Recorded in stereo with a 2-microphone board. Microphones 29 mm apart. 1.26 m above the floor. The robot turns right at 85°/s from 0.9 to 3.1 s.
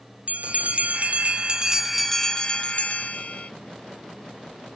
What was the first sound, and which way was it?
A bell, 95° right.